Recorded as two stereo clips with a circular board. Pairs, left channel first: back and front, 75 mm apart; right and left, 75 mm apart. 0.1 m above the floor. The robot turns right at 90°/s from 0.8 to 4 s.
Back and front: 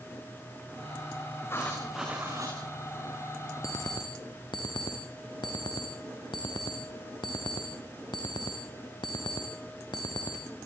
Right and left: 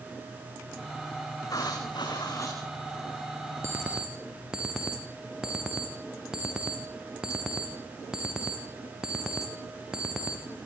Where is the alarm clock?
140° left, 5.5 m; by 10.4 s 170° left, 5.5 m.